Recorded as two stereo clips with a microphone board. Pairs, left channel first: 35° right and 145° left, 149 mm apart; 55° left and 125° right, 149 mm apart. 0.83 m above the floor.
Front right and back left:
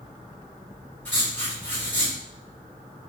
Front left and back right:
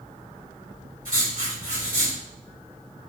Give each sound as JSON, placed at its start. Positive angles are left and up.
{"t": 1.1, "sound": "writing", "azimuth_deg": -110, "distance_m": 2.5}